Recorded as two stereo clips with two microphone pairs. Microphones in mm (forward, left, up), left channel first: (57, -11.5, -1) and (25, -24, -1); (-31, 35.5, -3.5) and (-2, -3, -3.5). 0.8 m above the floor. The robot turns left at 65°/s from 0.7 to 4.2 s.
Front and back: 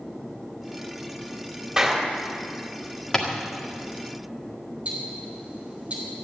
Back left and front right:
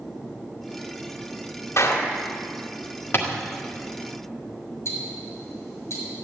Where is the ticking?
150° left, 4.5 m.